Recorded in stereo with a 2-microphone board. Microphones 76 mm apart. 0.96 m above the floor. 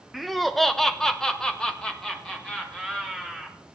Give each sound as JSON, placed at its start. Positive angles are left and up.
{"t": 0.1, "sound": "laughter", "side_deg": 0, "distance_m": 0.8}